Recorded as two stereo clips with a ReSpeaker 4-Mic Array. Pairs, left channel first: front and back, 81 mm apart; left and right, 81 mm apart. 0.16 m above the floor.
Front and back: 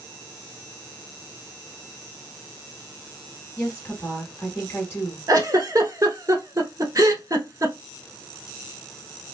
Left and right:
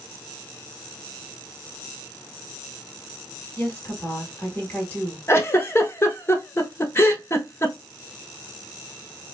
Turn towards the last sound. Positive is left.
turn(degrees=145)